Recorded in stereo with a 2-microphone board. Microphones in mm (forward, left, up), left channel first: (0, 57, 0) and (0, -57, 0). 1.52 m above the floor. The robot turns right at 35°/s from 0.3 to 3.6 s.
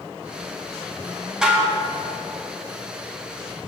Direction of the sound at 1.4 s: 5° right (ahead or behind).